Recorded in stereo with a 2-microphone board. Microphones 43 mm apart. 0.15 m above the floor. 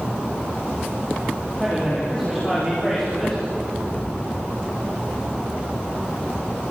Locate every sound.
1.6 s a man speaking: 15° left (ahead or behind), 7 m
3.9 s an explosion: 50° left (ahead or behind), 1.2 m